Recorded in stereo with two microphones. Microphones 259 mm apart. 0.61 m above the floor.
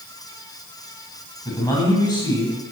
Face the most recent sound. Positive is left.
turn(degrees=15)  # may be behind; listen again after turning